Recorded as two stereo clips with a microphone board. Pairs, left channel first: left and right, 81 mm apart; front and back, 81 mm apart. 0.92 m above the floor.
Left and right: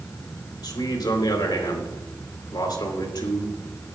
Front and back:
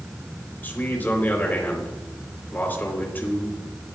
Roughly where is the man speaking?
Ahead left.